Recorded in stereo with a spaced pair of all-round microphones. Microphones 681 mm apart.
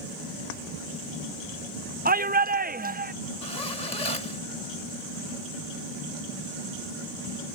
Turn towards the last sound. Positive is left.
turn(degrees=85)